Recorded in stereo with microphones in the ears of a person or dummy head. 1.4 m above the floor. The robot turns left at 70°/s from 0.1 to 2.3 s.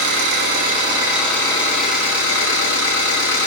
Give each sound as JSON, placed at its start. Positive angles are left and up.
{"t": 0.0, "sound": "an engine running", "azimuth_deg": -100, "distance_m": 1.7}